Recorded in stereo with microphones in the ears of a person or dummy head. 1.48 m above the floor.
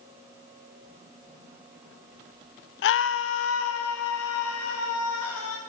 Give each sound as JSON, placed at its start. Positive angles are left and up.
{"t": 2.8, "sound": "a scream", "side_deg": 60, "distance_m": 0.7}